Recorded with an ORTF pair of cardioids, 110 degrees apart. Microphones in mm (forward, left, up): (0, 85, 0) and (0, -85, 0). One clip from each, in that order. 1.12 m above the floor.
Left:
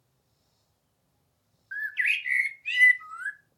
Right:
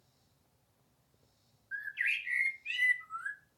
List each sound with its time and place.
1.7 s a bird: 45° left, 1.0 m